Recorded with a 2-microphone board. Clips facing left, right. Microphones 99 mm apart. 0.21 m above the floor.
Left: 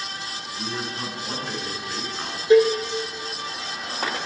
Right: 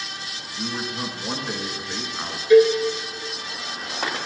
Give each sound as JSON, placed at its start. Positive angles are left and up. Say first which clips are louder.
{"t": 0.6, "sound": "a man speaking", "louder": "right 2 dB", "side_deg": -10, "distance_m": 2.0}
{"t": 2.5, "sound": "a cowbell", "louder": "right 2 dB", "side_deg": 35, "distance_m": 1.1}